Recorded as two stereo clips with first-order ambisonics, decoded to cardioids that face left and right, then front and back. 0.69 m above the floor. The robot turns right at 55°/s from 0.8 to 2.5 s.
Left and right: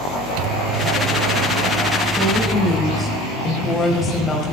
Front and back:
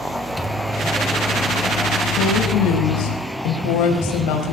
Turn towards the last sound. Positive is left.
turn(degrees=20)